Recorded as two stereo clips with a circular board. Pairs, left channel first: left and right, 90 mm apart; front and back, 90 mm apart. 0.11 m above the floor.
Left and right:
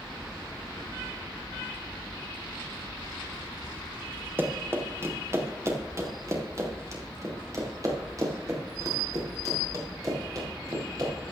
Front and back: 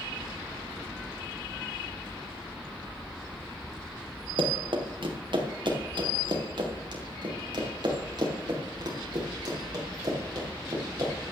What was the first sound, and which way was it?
Running footsteps, 155° right.